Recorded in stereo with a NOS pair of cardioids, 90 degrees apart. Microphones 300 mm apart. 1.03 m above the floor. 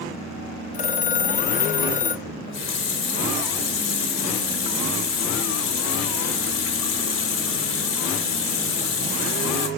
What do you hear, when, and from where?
0.7 s a phone ringing: 25° left, 0.6 m
2.2 s a running tap: 45° left, 1.3 m